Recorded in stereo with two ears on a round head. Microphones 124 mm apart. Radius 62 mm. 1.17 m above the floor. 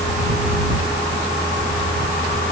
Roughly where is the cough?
No cough in this recording.